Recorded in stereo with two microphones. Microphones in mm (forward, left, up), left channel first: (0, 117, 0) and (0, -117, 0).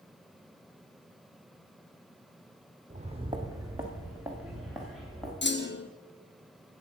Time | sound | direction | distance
2.9 | footsteps | 35° right (ahead or behind) | 1.3 m
5.4 | a clunk | 50° left (ahead or behind) | 0.8 m